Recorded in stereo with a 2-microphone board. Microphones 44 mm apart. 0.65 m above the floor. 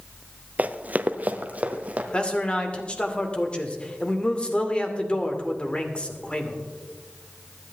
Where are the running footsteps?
35° right (ahead or behind), 0.7 m; by 2.0 s 30° right (ahead or behind), 1.7 m.